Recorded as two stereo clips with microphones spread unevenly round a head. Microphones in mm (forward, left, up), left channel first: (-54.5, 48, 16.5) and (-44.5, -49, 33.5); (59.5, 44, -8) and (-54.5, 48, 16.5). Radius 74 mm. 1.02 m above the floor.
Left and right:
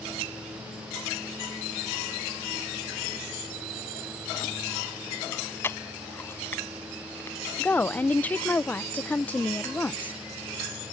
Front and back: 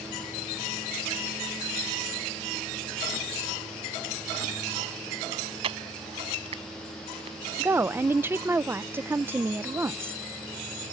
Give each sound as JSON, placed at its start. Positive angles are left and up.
{"t": 5.3, "sound": "chewing", "azimuth_deg": 165}
{"t": 7.6, "sound": "a woman speaking", "azimuth_deg": 105}